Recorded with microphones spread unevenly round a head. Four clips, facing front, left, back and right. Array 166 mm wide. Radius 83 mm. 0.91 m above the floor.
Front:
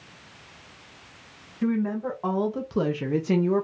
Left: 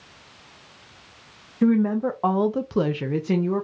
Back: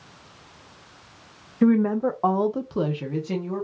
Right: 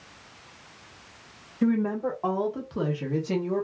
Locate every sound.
1.6 s a woman speaking: 170° left, 0.8 m; by 3.6 s 25° left, 0.8 m